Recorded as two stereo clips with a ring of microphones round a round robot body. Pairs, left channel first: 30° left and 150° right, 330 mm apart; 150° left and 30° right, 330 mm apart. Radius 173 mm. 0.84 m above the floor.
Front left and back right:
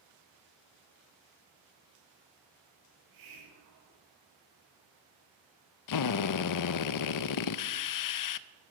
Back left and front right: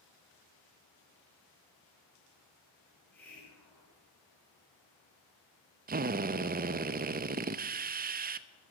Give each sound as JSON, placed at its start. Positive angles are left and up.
{"t": 2.9, "sound": "a hiss", "azimuth_deg": -125, "distance_m": 6.0}
{"t": 5.9, "sound": "a drill", "azimuth_deg": 30, "distance_m": 0.6}